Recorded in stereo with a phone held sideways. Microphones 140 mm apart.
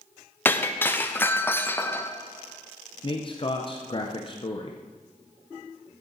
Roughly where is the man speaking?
Left.